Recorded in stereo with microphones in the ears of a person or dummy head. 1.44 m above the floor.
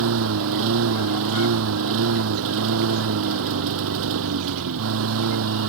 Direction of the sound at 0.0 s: 70° right (ahead or behind).